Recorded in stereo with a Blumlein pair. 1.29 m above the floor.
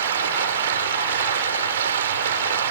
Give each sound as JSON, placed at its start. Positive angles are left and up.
{"t": 0.0, "sound": "running water", "azimuth_deg": -65}